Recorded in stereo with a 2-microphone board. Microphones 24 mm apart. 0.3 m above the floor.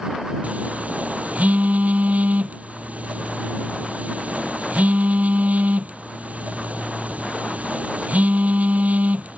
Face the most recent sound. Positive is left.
turn(degrees=-65)  # may be behind; listen again after turning